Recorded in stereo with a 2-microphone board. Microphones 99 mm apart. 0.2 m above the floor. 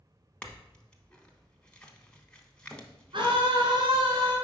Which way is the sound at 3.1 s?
55° right (ahead or behind).